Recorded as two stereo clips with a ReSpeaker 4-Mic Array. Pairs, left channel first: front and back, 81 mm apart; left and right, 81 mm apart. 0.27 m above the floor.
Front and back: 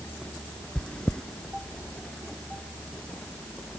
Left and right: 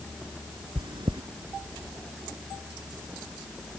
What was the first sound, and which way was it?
Chewing, 80° right.